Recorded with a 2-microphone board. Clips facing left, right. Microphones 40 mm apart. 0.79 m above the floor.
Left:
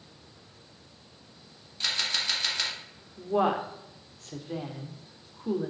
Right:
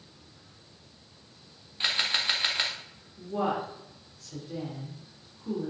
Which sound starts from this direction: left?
A woman speaking, at 3.2 s.